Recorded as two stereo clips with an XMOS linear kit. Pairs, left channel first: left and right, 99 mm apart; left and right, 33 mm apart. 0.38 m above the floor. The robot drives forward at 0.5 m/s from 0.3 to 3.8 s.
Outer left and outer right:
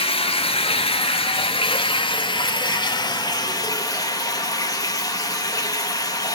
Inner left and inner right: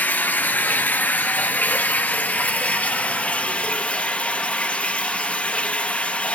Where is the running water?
80° left, 1.3 m; by 6.4 s 40° left (ahead or behind), 2 m.